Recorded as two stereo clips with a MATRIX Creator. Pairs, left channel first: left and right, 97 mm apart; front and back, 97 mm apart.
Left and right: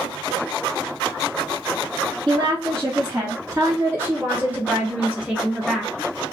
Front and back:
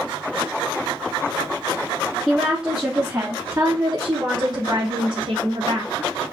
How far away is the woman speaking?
About 1.5 m.